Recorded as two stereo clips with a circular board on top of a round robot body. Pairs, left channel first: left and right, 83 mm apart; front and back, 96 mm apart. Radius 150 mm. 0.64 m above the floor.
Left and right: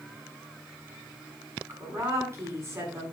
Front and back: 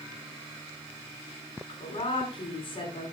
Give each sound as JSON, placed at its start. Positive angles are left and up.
{"t": 1.7, "sound": "a woman speaking", "azimuth_deg": -30, "distance_m": 8.5}